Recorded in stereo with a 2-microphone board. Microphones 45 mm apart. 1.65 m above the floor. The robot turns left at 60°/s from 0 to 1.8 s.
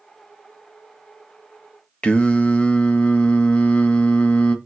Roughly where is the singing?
Left.